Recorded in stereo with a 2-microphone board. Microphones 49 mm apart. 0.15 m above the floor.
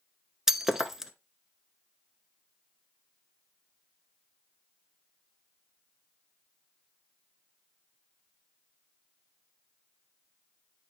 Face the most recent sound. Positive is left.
turn(degrees=-10)  # may be behind; listen again after turning